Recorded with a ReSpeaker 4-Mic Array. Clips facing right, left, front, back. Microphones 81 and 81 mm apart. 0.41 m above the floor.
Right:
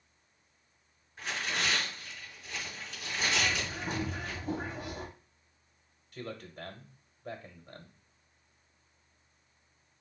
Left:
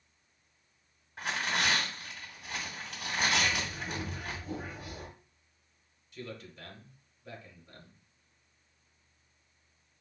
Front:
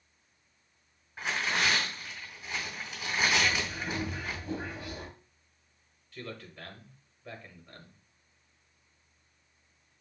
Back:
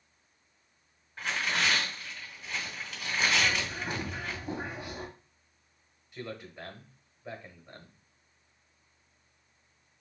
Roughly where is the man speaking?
Right.